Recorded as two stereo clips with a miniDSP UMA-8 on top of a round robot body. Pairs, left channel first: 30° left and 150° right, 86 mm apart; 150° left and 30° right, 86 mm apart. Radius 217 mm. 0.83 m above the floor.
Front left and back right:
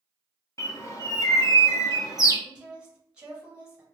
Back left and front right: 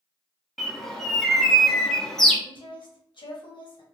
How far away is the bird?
About 1.1 m.